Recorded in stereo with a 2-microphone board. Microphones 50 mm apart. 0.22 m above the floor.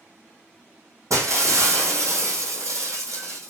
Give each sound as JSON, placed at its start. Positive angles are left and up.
{"t": 1.1, "sound": "breaking glass", "side_deg": -90, "distance_m": 1.4}